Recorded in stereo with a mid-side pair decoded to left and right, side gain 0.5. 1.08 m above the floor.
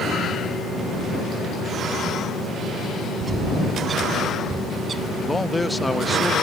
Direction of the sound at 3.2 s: 35° right.